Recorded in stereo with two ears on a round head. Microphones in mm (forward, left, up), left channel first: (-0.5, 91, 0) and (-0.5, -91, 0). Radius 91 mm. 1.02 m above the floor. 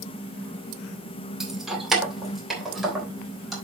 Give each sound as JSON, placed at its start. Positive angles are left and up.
{"t": 1.4, "sound": "keys jangling", "side_deg": -5, "distance_m": 1.9}